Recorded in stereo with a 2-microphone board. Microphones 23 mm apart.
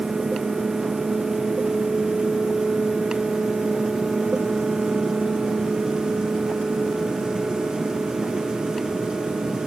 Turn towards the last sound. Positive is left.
No sound to turn to.